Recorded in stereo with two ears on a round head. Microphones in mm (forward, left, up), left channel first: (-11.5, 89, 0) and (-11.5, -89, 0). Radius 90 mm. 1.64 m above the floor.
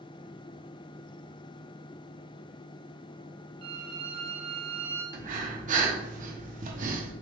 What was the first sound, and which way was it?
A violin, 25° right (ahead or behind).